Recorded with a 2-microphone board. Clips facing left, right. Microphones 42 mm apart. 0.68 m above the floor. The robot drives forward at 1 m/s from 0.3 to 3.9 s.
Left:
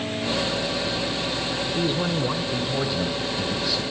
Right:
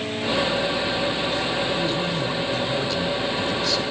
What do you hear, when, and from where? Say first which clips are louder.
1.8 s a man speaking: even; 25° left (ahead or behind), 1.8 m; by 3.8 s 10° left (ahead or behind), 3.5 m